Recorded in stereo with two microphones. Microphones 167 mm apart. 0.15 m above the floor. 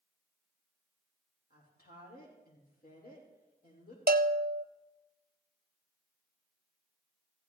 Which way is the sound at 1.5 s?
75° left (ahead or behind).